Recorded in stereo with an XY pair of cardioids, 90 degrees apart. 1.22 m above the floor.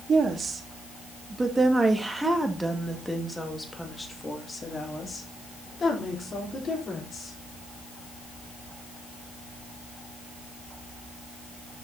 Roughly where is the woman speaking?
Ahead right.